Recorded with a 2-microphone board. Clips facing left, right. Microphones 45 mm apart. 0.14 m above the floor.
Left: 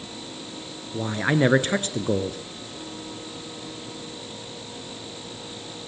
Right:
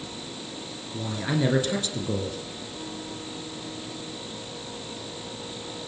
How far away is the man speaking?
About 1.8 m.